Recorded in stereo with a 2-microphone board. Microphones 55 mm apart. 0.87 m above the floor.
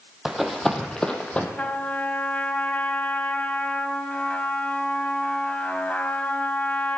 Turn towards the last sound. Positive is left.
turn(degrees=30)  # may be behind; listen again after turning